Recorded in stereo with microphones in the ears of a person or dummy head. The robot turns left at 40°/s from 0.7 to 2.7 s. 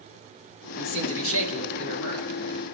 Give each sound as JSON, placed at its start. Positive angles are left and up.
{"t": 0.8, "sound": "a man speaking", "azimuth_deg": 115, "distance_m": 1.6}